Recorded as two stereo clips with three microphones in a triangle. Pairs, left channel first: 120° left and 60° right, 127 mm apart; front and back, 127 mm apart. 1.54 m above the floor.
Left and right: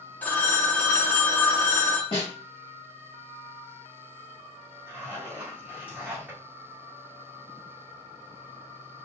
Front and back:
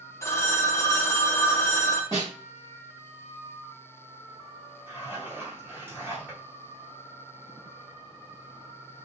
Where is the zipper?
125° right, 1.2 m.